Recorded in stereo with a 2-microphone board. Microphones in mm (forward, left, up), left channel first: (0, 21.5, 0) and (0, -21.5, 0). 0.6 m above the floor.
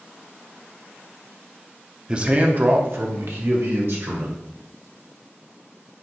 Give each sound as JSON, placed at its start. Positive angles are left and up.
{"t": 2.1, "sound": "a man speaking", "side_deg": -20, "distance_m": 0.6}